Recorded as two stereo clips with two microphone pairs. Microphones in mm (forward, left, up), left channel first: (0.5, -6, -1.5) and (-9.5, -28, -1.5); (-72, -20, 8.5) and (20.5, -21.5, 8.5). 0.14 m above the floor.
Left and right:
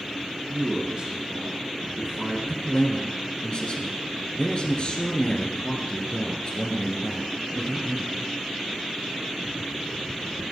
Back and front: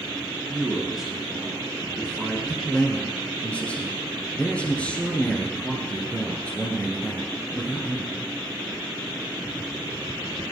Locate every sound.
0.5 s a man speaking: 85° right, 2.5 m
2.5 s a man speaking: 105° left, 1.8 m